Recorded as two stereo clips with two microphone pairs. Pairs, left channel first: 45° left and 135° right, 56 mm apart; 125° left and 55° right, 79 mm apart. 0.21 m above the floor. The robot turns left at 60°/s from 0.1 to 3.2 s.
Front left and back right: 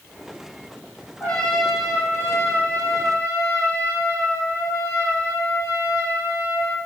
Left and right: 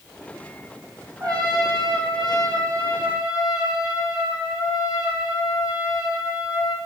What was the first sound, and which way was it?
A trumpet, 15° right.